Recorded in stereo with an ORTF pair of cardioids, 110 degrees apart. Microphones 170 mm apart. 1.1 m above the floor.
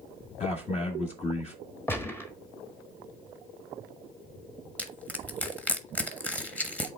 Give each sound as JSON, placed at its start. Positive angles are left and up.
{"t": 0.4, "sound": "a man speaking", "azimuth_deg": 40, "distance_m": 1.6}
{"t": 1.9, "sound": "a gunshot", "azimuth_deg": 15, "distance_m": 1.3}
{"t": 4.8, "sound": "crushing", "azimuth_deg": 10, "distance_m": 1.3}